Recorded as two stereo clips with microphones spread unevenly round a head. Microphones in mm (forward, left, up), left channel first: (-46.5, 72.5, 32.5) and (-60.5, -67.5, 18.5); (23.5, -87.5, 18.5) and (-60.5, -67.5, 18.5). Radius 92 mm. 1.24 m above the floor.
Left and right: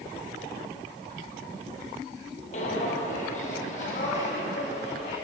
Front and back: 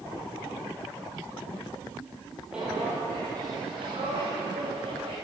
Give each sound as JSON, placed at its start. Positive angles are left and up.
{"t": 2.5, "sound": "footsteps", "azimuth_deg": 80, "distance_m": 1.7}